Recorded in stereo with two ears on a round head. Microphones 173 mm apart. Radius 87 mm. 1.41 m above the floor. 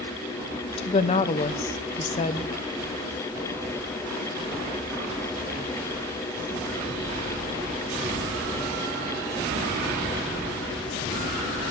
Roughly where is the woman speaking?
Left.